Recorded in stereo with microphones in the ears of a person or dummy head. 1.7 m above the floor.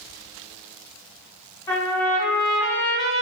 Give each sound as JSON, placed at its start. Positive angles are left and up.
{"t": 1.7, "sound": "a trumpet", "side_deg": 25, "distance_m": 1.8}